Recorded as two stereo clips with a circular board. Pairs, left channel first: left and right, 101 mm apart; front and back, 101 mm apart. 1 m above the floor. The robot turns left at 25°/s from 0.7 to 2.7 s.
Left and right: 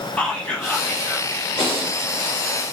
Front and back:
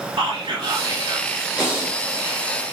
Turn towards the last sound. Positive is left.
turn(degrees=80)